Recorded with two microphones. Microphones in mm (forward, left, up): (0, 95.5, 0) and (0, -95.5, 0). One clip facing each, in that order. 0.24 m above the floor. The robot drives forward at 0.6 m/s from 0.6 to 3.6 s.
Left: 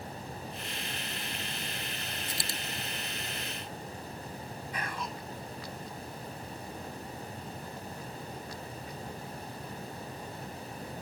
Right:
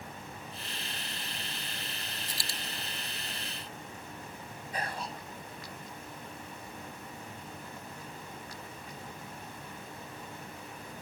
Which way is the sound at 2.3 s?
25° left (ahead or behind).